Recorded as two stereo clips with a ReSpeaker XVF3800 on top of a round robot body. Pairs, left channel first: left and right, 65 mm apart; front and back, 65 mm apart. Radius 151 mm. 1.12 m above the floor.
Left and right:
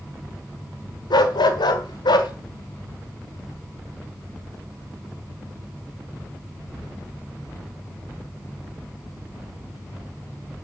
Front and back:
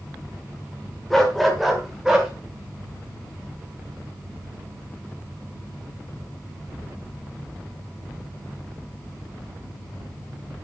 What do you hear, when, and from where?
1.1 s a dog barking: 85° left, 1.7 m; by 2.3 s 100° left, 2 m